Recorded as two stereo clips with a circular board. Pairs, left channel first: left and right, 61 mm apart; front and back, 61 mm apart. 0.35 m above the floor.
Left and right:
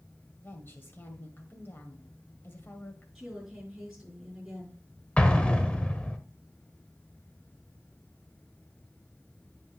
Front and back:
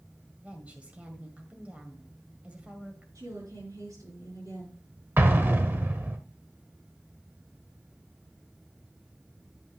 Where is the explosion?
150° left, 0.9 m.